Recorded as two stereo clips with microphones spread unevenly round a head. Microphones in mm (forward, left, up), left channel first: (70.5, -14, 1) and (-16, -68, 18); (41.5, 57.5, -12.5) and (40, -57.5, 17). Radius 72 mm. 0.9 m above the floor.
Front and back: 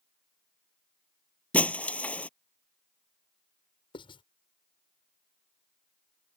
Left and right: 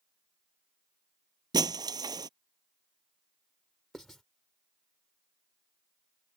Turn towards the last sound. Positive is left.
turn(degrees=0)